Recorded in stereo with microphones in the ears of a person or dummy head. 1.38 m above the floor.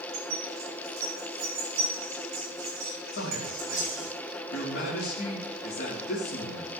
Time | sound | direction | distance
0.1 | keys jangling | 45° right (ahead or behind) | 3 m
3.1 | a man speaking | 60° left (ahead or behind) | 3.5 m